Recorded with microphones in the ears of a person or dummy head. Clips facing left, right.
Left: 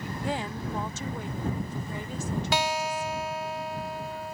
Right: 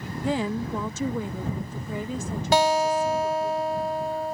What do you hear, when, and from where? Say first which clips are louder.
0.2 s a woman speaking: right 7 dB; 75° right (ahead or behind)
2.5 s a guitar: right 11 dB; 40° right (ahead or behind)